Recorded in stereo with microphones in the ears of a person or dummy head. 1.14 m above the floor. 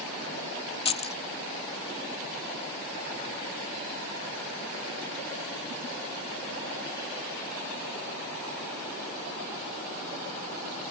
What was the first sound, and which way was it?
Keys jangling, 30° left (ahead or behind).